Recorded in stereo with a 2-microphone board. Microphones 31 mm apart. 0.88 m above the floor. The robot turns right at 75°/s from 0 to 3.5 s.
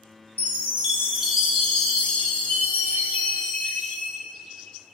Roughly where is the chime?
Right.